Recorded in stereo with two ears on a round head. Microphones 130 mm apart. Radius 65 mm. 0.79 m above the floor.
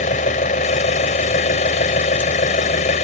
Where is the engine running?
55° left (ahead or behind).